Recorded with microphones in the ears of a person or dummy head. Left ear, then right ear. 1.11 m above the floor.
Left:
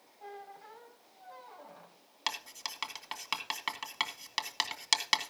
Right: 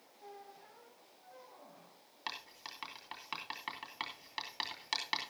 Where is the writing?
70° left (ahead or behind), 2 m.